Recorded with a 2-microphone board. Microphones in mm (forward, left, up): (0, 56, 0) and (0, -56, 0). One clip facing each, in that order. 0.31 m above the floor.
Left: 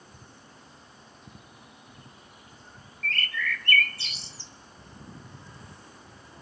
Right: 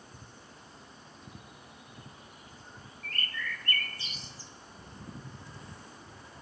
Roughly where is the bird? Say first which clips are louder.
Left 7 dB; left.